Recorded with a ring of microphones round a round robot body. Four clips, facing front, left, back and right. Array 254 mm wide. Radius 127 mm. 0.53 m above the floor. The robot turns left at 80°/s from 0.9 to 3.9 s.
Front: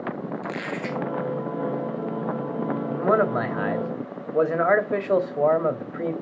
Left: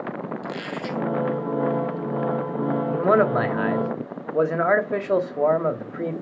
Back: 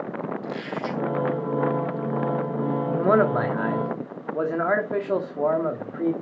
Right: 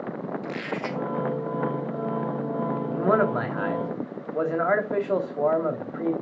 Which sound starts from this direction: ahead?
A squeak, at 0.4 s.